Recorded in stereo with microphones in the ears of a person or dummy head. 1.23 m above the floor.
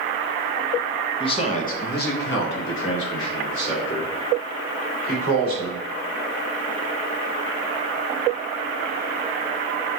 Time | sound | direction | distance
1.2 | a man speaking | 25° left (ahead or behind) | 0.8 m